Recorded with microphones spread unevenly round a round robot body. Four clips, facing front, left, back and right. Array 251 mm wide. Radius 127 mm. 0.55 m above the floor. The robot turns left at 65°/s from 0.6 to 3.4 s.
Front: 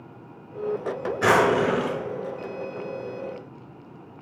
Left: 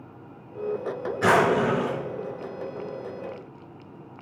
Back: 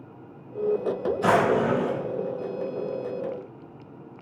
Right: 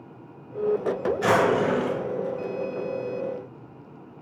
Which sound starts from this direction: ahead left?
A drawer, at 1.2 s.